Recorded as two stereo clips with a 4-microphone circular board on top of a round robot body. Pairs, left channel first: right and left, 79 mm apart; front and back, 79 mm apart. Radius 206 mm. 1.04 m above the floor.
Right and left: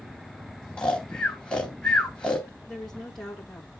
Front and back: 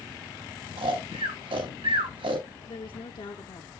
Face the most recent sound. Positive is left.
turn(degrees=-5)